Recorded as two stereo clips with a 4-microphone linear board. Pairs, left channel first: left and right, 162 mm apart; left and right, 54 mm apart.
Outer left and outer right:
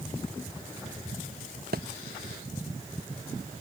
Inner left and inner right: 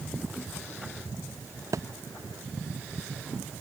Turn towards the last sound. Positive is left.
turn(degrees=-85)